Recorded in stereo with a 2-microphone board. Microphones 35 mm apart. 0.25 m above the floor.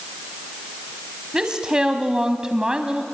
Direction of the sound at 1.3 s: 25° right (ahead or behind).